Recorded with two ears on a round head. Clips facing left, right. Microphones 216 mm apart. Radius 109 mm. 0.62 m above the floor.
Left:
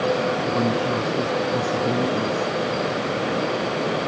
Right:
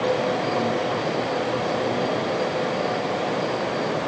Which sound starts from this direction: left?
A woman speaking, at 0.4 s.